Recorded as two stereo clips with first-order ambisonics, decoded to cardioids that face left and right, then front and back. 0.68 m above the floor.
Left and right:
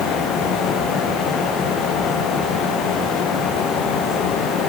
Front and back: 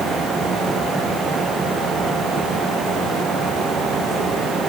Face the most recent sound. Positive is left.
No sound to turn to.